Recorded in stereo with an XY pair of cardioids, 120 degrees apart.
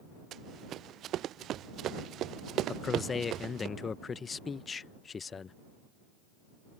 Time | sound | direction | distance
0.3 | running footsteps | 60° right | ?
2.7 | a man speaking | 35° left | ?